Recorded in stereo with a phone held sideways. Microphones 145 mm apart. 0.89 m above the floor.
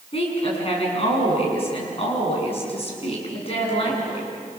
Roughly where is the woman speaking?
Left.